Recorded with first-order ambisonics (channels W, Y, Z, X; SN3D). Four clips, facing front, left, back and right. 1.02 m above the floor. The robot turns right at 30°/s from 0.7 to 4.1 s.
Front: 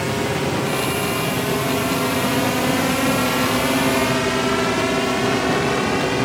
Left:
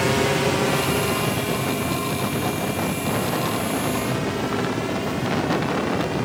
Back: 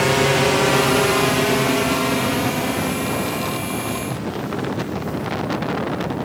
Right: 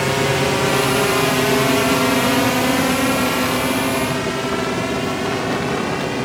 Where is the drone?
160° right; by 6.2 s 20° right.